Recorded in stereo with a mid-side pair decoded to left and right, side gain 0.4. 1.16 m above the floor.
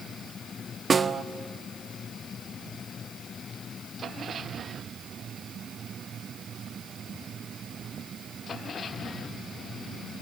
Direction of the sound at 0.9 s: 35° right.